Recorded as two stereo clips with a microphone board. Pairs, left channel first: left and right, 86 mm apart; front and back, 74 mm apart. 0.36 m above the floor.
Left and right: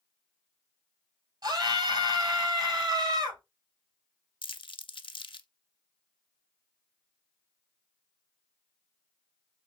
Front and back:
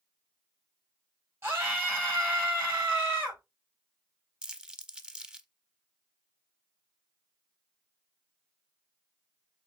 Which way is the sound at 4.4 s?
100° left.